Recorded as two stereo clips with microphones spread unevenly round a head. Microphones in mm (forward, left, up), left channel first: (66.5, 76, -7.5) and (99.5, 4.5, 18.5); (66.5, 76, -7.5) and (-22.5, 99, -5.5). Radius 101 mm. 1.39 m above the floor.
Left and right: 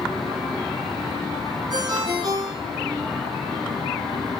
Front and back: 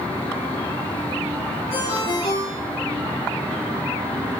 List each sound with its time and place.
1.7 s a ringtone: 40° right, 8.5 m